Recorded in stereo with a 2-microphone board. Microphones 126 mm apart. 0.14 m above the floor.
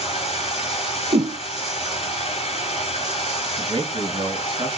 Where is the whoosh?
50° right (ahead or behind), 0.9 m.